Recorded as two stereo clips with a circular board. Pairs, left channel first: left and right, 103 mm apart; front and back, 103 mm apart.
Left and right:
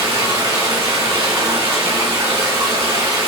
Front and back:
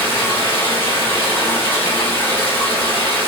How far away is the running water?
About 1.8 m.